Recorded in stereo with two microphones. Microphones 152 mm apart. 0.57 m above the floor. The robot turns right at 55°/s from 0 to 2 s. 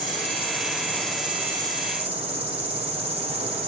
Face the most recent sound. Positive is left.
turn(degrees=-135)